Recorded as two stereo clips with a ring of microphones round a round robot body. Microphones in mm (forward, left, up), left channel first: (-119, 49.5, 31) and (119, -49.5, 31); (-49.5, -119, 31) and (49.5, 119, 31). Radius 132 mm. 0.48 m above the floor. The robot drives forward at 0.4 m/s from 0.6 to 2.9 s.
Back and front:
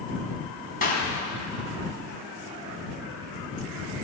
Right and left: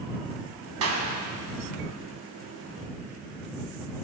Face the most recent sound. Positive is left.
turn(degrees=115)